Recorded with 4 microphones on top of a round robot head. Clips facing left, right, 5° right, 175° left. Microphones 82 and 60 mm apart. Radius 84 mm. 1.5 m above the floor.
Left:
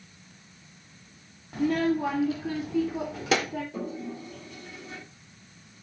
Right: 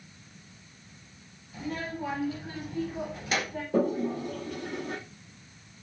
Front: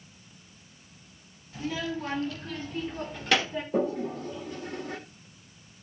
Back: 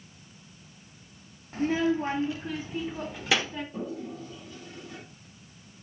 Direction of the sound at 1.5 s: 120° left.